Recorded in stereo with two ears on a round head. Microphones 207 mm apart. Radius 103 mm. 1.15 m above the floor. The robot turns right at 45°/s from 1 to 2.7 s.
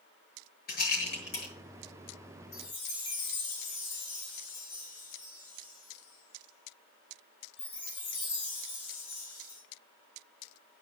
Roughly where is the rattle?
Left.